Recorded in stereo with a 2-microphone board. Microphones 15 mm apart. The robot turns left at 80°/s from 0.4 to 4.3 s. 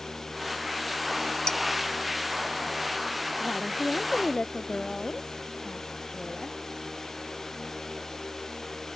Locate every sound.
1.5 s dishes clattering: 45° left (ahead or behind); by 1.6 s 50° left (ahead or behind)
3.4 s a woman speaking: 135° left; by 6.5 s 60° left